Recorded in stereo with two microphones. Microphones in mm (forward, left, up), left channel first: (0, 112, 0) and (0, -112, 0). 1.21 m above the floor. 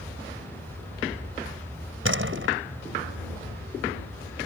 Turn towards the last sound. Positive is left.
turn(degrees=-65)  # may be behind; listen again after turning